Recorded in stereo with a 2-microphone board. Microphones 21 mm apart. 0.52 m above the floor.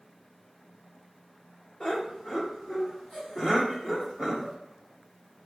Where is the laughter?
40° left (ahead or behind), 1.2 m; by 4.5 s 5° right (ahead or behind), 1.7 m.